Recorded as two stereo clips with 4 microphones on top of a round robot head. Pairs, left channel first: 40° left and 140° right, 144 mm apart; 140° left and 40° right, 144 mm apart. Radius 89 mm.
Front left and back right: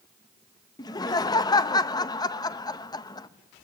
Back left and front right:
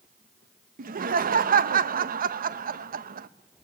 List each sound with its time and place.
0.8 s laughter: 20° right, 0.8 m